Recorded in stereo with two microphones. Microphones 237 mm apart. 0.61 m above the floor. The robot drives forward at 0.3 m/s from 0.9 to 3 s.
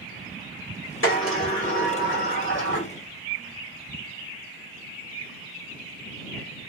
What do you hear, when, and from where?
1.0 s a sliding door: 60° left (ahead or behind), 1.9 m; by 2.9 s 55° left (ahead or behind), 2 m